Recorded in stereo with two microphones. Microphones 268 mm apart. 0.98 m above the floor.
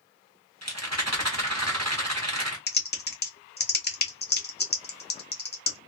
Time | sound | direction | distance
0.6 | a rattle | 75° right (ahead or behind) | 1.0 m
2.7 | typing on a keyboard | 40° left (ahead or behind) | 0.6 m